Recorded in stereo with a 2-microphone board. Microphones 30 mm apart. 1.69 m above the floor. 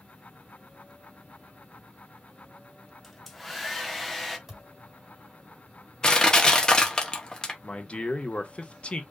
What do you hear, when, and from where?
3.0 s a hair dryer: 5° left (ahead or behind), 1.0 m
4.5 s a thud: 5° right (ahead or behind), 3.5 m
6.0 s crushing: 25° left (ahead or behind), 1.3 m
7.6 s a man speaking: 40° left (ahead or behind), 1.3 m